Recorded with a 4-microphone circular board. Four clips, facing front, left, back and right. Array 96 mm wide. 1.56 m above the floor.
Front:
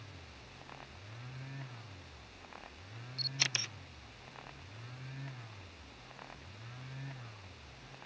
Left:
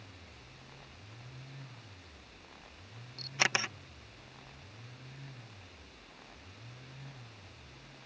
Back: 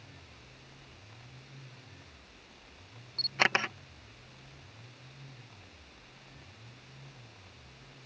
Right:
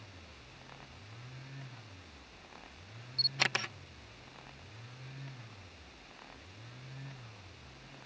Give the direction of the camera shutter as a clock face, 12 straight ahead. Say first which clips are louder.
Left 2 dB, back 14 dB; 6 o'clock.